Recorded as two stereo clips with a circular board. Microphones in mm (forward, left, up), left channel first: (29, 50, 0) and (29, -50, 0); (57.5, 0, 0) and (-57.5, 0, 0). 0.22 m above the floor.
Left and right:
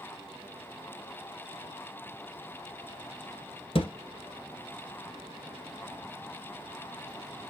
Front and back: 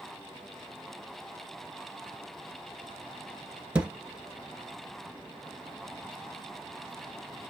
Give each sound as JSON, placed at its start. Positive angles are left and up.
{"t": 3.8, "sound": "a thud", "azimuth_deg": 100, "distance_m": 1.1}